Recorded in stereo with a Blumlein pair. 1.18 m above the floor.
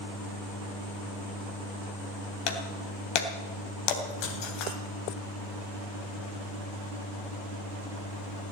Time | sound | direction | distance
2.5 | breaking glass | 40° left | 2.5 m